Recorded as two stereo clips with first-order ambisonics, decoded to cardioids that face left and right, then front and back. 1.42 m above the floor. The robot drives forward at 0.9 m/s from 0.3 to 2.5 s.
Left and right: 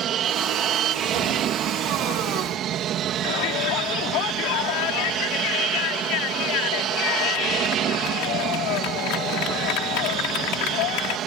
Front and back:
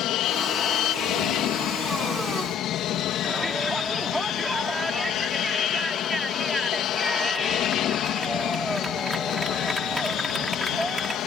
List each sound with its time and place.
0.0 s an aircraft: 40° right
3.2 s a shout: 90° left